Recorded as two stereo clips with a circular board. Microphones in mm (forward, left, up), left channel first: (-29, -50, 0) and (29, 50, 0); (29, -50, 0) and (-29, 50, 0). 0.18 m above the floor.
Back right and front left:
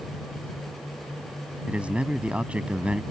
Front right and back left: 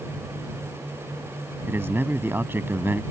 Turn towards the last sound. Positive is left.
turn(degrees=115)